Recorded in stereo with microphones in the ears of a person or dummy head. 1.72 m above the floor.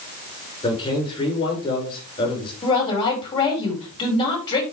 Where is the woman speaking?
30° left (ahead or behind), 5.5 m.